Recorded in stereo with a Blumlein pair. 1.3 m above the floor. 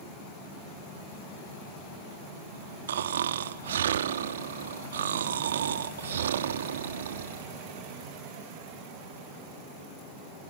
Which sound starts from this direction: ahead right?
Snoring, at 2.9 s.